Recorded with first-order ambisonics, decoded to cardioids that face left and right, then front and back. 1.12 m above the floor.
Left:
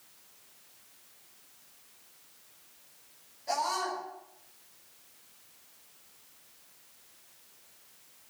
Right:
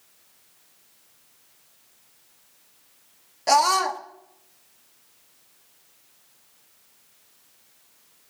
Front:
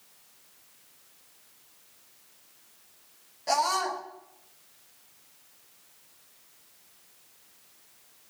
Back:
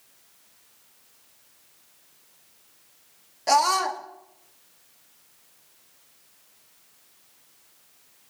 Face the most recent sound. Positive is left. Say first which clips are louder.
# right 12 dB, back 6 dB
turn(degrees=-115)